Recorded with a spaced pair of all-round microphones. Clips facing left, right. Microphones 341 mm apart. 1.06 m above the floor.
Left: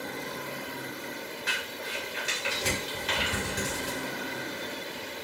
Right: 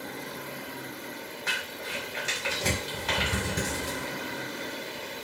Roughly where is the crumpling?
Right.